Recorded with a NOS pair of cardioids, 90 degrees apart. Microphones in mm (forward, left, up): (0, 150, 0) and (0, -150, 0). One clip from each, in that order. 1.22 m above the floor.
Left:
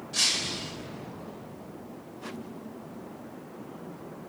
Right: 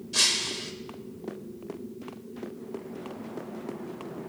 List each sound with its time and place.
0.1 s breaking glass: 25° right, 2.5 m